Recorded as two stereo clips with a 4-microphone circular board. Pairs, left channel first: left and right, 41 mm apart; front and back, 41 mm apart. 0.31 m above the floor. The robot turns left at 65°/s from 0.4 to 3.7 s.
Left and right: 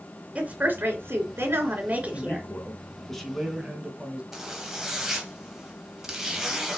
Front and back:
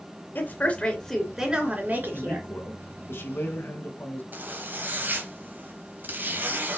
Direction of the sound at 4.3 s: 170° right.